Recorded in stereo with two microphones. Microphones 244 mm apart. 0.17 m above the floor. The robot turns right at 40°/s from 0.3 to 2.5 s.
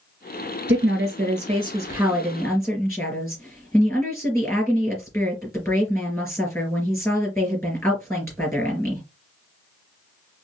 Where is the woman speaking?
60° right, 3.5 m; by 9.0 s 10° left, 3.5 m.